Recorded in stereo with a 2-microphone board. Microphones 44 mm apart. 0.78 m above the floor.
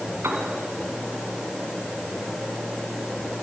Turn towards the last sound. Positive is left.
turn(degrees=-75)  # may be behind; listen again after turning